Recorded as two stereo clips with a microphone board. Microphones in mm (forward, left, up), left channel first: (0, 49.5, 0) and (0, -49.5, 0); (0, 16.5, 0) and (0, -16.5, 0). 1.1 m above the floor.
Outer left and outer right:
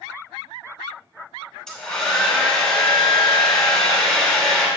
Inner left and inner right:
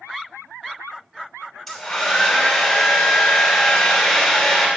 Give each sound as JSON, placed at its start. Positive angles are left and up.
{"t": 1.7, "sound": "a hair dryer", "side_deg": 5, "distance_m": 2.5}